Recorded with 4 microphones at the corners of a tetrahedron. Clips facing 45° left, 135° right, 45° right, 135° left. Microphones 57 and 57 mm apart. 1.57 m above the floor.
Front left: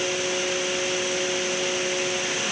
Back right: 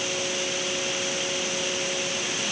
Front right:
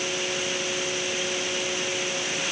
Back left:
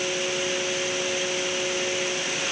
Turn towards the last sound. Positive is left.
No sound to turn to.